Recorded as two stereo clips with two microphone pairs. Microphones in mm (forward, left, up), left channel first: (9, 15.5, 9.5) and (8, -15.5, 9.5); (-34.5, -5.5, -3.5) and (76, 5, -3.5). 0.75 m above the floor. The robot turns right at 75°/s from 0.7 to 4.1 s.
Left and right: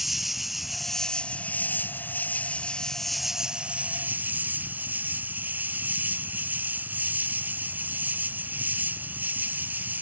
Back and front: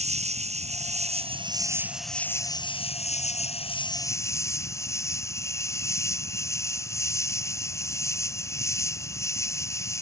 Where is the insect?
5° right; by 10.0 s 110° right.